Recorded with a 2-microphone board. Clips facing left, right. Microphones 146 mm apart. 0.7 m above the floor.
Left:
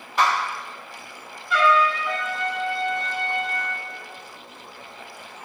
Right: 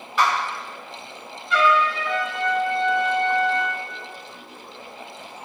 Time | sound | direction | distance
0.2 | a clap | 40° left (ahead or behind) | 1.2 m
1.5 | a trumpet | centre (ahead or behind) | 1.0 m